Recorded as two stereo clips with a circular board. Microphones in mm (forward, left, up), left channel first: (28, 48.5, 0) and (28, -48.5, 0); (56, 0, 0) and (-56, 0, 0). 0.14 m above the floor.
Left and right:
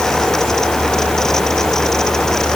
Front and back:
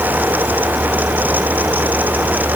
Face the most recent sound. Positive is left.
No sound to turn to.